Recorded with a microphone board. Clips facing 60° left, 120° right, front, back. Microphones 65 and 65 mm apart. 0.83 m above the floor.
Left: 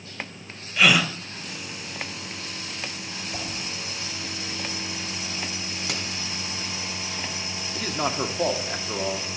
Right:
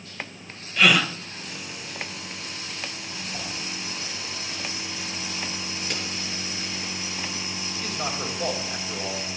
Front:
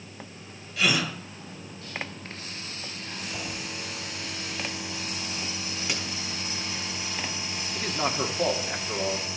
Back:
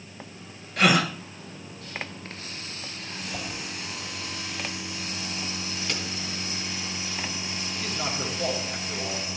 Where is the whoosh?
115° left, 4 m.